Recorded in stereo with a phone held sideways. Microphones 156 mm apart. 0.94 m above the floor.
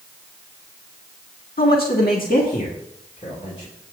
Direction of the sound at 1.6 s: 70° left (ahead or behind).